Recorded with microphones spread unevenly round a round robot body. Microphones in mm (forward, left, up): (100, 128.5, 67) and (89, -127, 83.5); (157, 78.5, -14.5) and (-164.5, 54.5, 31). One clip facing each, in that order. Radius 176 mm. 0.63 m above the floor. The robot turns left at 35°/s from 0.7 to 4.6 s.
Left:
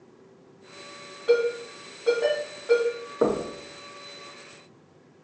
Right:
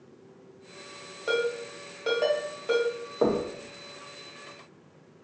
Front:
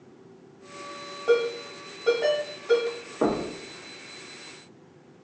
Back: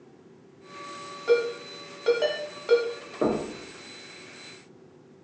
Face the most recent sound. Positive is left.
turn(degrees=-5)